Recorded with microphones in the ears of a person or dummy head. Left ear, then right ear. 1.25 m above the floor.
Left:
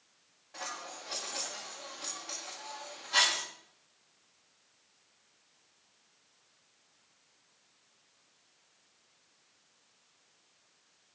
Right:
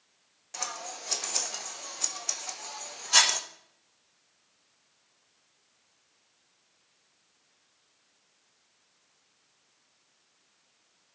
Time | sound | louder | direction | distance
0.5 | scissors | right 4 dB | 70° right (ahead or behind) | 1.1 m